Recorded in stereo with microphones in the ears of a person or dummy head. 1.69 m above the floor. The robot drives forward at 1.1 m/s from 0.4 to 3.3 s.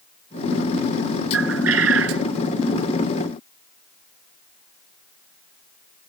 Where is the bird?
70° right (ahead or behind); by 2.2 s 65° right (ahead or behind).